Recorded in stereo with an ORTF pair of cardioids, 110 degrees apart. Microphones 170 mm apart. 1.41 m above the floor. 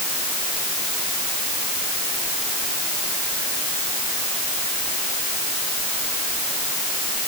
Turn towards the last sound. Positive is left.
No sound to turn to.